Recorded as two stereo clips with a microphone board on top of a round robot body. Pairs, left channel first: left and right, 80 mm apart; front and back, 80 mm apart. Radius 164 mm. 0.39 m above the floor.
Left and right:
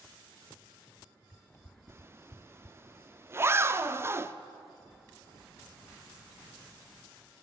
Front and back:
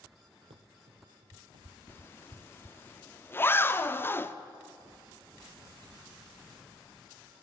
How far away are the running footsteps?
About 0.9 m.